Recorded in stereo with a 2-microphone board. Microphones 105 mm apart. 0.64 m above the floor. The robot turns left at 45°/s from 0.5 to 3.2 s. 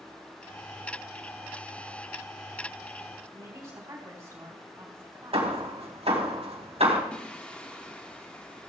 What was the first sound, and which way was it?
A woman speaking, 35° right (ahead or behind).